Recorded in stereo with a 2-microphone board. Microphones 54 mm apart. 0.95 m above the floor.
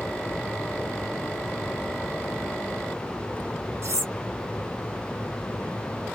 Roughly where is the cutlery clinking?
Right.